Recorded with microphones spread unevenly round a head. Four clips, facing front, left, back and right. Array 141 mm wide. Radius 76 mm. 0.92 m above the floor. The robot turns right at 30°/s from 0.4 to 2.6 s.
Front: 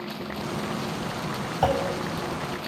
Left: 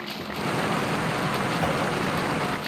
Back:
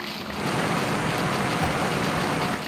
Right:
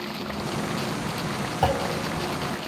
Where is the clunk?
30° right, 5 m; by 1.9 s 20° right, 5 m.